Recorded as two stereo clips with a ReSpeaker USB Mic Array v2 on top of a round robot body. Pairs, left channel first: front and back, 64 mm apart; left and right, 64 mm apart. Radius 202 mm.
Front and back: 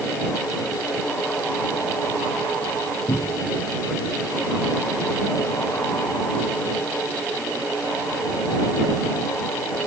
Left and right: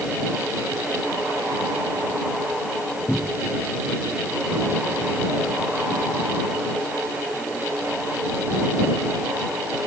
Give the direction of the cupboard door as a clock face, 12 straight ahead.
12 o'clock.